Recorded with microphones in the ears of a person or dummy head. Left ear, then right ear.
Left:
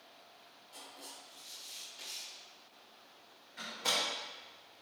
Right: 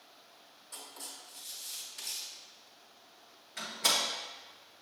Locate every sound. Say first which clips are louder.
0.7 s writing: right 4 dB; 45° right (ahead or behind), 2 m
3.6 s a door slam: right 4 dB; 45° right (ahead or behind), 1.0 m